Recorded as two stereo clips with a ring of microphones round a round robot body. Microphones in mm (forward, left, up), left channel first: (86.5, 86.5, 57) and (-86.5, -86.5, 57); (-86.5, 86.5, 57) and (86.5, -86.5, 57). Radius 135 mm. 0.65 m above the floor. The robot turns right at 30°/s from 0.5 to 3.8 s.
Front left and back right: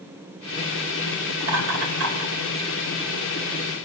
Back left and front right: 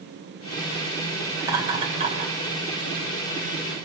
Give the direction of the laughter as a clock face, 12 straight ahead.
4 o'clock.